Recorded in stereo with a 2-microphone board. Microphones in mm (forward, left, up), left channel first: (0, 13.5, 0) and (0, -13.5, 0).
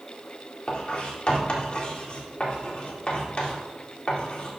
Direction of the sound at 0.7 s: 45° left (ahead or behind).